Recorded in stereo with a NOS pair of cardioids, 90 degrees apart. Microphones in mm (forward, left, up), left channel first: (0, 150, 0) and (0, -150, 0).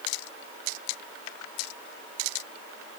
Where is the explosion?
No explosion in this recording.